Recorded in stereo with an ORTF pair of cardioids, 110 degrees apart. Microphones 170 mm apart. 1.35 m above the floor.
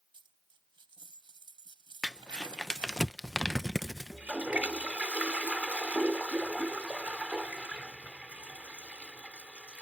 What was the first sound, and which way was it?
A dropped coin, 30° right.